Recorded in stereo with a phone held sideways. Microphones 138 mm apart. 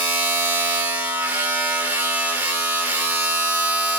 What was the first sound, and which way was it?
A machine running, 15° right (ahead or behind).